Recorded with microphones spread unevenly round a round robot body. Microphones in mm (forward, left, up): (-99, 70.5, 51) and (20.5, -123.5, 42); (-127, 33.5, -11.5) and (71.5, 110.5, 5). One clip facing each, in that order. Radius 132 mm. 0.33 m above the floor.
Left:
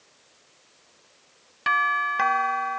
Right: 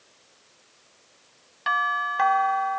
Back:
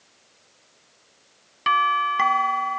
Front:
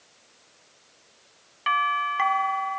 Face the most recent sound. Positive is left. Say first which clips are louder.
# even, back 4 dB
turn(degrees=175)